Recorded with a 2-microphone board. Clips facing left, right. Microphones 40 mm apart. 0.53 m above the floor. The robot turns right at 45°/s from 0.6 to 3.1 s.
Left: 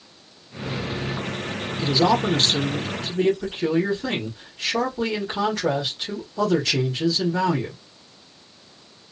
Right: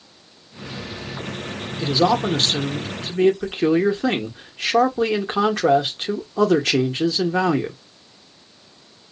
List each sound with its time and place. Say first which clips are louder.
1.8 s a man speaking: right 1 dB; 160° right, 1.0 m; by 7.8 s 100° right, 1.0 m